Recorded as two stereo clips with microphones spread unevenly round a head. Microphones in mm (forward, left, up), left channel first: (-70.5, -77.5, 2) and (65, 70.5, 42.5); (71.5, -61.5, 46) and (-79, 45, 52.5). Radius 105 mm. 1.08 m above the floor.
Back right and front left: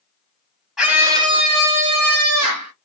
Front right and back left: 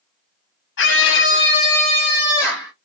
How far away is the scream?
About 1.1 m.